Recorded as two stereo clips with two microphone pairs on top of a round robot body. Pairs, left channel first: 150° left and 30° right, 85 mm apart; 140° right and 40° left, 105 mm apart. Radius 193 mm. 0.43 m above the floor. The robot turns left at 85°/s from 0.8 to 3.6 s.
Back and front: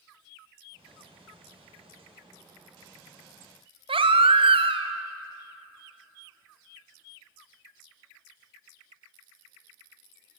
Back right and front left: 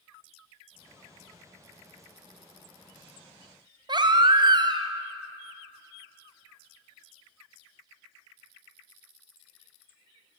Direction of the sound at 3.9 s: 10° right.